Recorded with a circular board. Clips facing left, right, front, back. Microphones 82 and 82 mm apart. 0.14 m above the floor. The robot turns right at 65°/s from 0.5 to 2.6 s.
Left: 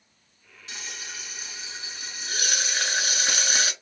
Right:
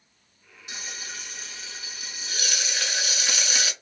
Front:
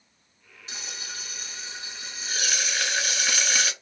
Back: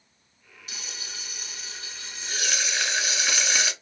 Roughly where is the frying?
Ahead right.